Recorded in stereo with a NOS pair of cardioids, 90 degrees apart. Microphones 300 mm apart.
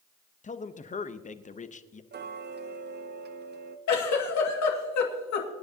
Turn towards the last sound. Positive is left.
turn(degrees=65)